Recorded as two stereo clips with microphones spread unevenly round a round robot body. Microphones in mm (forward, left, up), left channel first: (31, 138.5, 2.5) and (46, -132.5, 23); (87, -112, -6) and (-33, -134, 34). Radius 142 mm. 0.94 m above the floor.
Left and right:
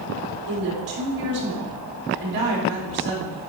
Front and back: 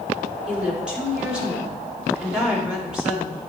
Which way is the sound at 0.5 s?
85° right.